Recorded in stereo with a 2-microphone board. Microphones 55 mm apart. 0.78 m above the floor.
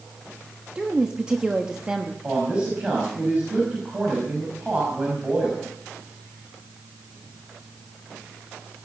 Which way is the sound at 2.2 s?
20° right (ahead or behind).